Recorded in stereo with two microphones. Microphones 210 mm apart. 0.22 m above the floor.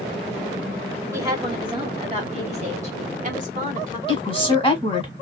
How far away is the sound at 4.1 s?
About 1.2 m.